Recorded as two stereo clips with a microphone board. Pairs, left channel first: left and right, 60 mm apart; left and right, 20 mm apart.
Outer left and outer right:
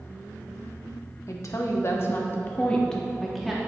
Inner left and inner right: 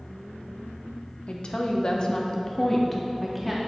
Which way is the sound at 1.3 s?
60° left (ahead or behind).